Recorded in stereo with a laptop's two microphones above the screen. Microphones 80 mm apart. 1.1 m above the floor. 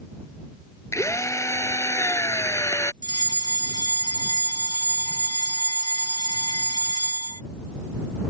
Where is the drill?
35° left (ahead or behind).